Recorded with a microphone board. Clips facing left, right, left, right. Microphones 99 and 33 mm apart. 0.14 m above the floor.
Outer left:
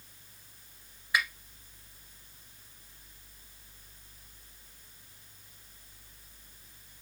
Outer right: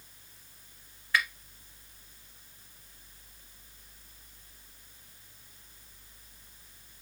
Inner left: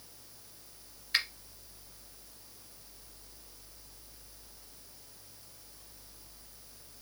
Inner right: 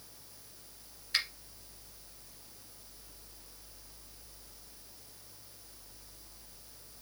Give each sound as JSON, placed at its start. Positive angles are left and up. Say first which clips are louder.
{"t": 1.1, "sound": "a finger snap", "louder": "outer right 1 dB, inner left 2 dB", "side_deg": 15, "distance_m": 1.5}